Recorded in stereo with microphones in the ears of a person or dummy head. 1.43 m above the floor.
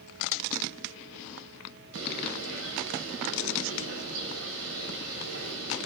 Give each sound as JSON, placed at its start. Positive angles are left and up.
{"t": 1.9, "sound": "a bird", "side_deg": -75, "distance_m": 7.0}